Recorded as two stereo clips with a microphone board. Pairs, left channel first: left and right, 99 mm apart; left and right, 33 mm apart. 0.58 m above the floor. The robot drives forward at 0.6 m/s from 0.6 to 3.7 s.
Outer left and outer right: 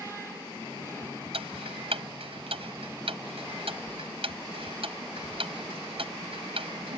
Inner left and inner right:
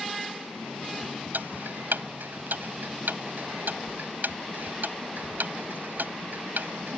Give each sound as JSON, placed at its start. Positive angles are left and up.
{"t": 1.3, "sound": "ticking", "side_deg": -75}